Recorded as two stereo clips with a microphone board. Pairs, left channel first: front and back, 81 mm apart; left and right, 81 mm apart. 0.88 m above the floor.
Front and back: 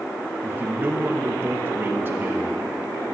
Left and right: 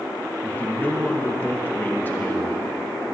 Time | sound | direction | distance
0.4 | a man speaking | 145° left | 1.1 m